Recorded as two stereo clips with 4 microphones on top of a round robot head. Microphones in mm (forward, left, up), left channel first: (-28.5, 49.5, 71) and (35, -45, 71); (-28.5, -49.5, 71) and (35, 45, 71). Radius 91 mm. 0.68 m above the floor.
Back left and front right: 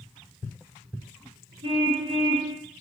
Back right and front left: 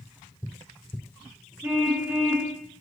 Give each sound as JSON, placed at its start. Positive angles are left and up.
{"t": 1.6, "sound": "a car horn", "azimuth_deg": -15, "distance_m": 7.0}